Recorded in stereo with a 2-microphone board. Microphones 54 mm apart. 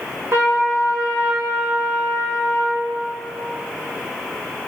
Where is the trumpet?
60° right (ahead or behind), 1.7 m.